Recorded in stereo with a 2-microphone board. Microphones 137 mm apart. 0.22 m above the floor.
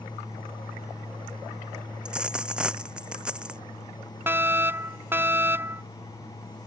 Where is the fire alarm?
15° right (ahead or behind).